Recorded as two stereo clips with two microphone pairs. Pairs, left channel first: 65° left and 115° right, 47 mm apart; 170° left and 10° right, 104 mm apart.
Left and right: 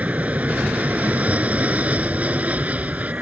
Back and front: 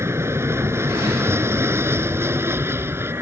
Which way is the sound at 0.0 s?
65° right.